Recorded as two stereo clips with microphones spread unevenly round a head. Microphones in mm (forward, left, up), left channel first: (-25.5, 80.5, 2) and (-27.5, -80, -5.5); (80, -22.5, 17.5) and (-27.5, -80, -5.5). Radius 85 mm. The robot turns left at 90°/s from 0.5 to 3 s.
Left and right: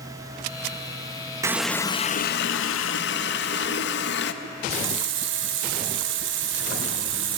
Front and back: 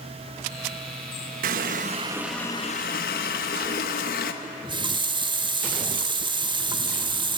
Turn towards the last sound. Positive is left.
turn(degrees=-100)